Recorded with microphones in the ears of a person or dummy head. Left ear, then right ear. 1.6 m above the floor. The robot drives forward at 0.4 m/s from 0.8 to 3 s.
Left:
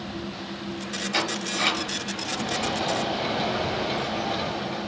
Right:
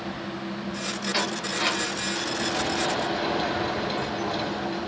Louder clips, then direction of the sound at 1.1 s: Left 2 dB; 5° right (ahead or behind).